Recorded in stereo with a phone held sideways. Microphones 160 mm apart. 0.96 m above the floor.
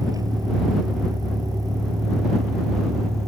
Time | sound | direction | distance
0.0 | a vehicle | 25° right (ahead or behind) | ?